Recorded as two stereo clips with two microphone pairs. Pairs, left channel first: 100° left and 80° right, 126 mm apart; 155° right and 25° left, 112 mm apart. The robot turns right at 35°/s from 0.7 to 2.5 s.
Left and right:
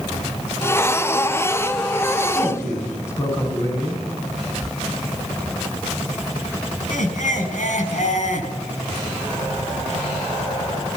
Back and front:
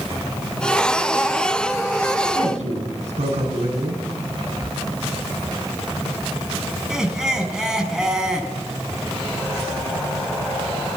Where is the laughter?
110° left, 5.5 m.